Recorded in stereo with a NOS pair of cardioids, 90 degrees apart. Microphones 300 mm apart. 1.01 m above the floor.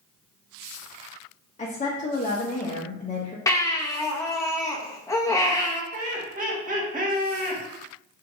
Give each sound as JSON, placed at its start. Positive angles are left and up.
{"t": 1.6, "sound": "a woman speaking", "azimuth_deg": 25, "distance_m": 0.9}
{"t": 3.5, "sound": "a baby crying", "azimuth_deg": 10, "distance_m": 0.7}
{"t": 5.9, "sound": "laughter", "azimuth_deg": -30, "distance_m": 1.7}